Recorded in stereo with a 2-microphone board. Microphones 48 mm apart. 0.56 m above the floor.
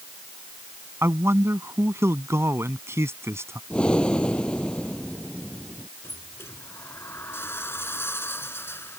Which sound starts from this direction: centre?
Breathing, at 3.7 s.